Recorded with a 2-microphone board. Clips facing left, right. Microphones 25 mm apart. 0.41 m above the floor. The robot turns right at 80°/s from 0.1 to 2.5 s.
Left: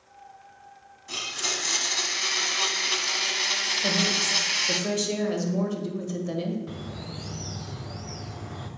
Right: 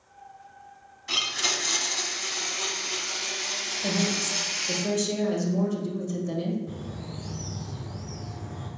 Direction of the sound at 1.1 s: 40° right.